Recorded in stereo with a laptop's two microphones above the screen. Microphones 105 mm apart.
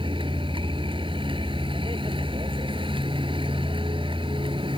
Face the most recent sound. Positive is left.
turn(degrees=-55)  # may be behind; listen again after turning